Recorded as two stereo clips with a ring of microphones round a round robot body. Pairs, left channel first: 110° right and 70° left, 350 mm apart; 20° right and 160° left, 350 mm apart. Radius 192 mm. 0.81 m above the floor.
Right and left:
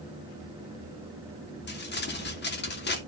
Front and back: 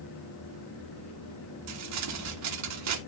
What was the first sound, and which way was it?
Crumpling, 170° right.